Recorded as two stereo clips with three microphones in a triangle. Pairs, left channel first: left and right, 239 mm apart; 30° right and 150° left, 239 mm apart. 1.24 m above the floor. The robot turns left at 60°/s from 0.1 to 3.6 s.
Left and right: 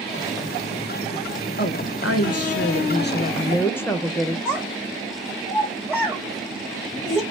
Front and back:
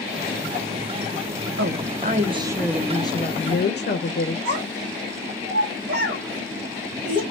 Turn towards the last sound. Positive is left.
turn(degrees=-175)